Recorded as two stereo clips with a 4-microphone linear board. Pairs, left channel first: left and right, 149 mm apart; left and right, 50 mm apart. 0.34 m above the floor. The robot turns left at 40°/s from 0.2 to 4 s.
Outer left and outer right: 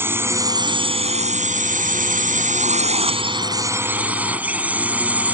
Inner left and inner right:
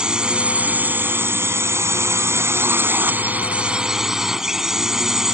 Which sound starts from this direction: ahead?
A drone, at 0.0 s.